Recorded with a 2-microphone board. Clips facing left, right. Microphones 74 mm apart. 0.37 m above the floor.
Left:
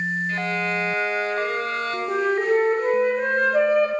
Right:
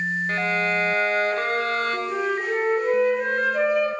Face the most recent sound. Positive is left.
turn(degrees=45)  # may be behind; listen again after turning